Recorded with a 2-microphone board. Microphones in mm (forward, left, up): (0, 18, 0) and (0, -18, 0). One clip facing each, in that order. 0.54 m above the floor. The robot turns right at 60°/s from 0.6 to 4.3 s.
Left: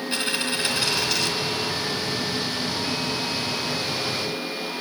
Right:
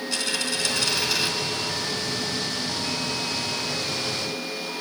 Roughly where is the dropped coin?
Behind left.